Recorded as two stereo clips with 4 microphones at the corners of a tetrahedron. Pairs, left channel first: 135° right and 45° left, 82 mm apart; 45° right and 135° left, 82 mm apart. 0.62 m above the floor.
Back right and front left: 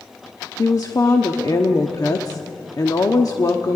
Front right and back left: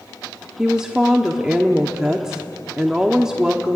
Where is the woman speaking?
145° right, 1.0 m.